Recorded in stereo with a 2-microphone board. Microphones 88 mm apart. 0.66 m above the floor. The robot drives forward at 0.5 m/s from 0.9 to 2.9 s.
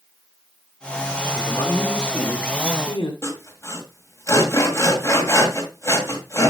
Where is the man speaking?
50° left (ahead or behind), 2 m; by 3.1 s 65° left (ahead or behind), 1.7 m.